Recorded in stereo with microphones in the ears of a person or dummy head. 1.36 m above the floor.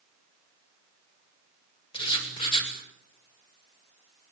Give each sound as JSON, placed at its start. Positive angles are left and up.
{"t": 1.9, "sound": "writing", "side_deg": 25, "distance_m": 5.0}